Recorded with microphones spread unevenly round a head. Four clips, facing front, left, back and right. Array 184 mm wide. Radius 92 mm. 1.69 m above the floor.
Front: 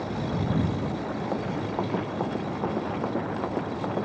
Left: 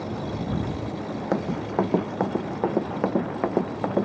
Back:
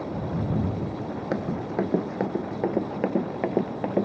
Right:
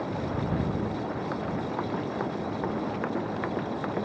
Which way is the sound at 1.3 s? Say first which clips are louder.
Left 5 dB, back 4 dB; 125° left.